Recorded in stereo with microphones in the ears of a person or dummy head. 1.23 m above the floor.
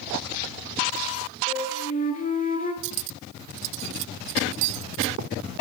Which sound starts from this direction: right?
Cutlery clinking, at 2.8 s.